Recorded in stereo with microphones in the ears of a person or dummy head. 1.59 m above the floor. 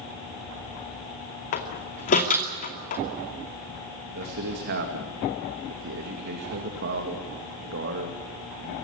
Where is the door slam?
45° left (ahead or behind), 2.5 m.